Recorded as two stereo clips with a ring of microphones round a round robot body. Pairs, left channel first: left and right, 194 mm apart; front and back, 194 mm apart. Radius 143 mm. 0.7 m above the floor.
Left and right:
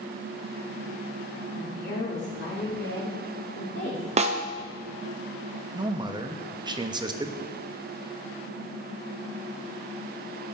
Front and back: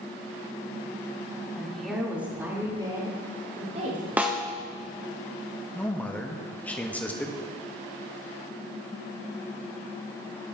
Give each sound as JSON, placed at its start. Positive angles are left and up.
{"t": 1.6, "sound": "a woman speaking", "azimuth_deg": 85, "distance_m": 2.5}
{"t": 4.2, "sound": "a snare drum", "azimuth_deg": -105, "distance_m": 0.6}
{"t": 5.7, "sound": "a man speaking", "azimuth_deg": -70, "distance_m": 0.6}